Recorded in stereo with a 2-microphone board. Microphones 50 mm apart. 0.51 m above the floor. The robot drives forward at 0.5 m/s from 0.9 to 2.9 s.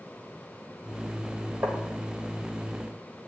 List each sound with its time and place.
1.6 s tapping: 60° right (ahead or behind), 2.0 m; by 1.8 s 55° right (ahead or behind), 2 m